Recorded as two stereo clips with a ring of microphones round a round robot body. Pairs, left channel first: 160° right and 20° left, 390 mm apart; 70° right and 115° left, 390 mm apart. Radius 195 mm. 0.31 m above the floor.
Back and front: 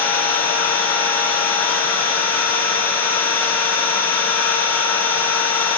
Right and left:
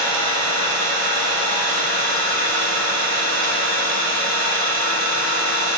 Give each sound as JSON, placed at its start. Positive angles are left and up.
{"t": 0.0, "sound": "an engine running", "azimuth_deg": 120, "distance_m": 1.5}